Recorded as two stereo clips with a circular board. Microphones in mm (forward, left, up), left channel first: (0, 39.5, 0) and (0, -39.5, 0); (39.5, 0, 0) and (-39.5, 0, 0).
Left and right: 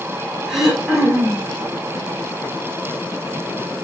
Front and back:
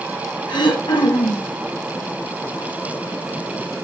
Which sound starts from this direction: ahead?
Throat clearing, at 0.5 s.